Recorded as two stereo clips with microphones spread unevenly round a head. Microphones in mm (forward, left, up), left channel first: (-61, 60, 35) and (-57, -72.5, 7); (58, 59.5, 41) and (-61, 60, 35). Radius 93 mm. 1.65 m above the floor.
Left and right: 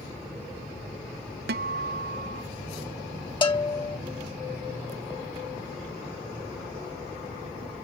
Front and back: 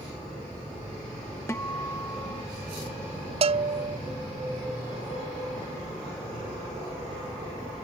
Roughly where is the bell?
Behind left.